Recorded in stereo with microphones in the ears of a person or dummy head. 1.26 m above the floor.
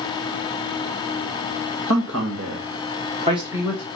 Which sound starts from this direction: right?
A man speaking, at 1.9 s.